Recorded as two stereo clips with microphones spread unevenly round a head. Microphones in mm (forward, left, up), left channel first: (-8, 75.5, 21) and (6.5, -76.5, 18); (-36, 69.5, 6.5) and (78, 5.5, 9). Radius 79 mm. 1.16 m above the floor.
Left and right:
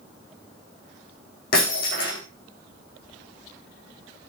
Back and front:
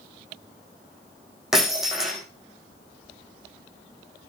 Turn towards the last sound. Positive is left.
turn(degrees=60)